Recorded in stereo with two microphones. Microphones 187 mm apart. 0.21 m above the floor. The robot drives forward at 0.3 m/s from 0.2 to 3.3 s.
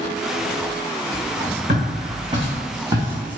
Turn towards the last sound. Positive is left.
turn(degrees=-5)  # may be behind; listen again after turning